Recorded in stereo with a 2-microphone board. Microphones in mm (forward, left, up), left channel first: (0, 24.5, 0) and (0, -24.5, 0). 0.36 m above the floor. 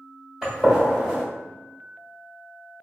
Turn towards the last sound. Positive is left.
turn(degrees=-15)  # may be behind; listen again after turning